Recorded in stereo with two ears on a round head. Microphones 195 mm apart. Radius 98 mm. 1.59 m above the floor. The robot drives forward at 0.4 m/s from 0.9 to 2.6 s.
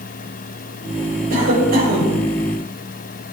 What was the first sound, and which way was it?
A cough, 45° right (ahead or behind).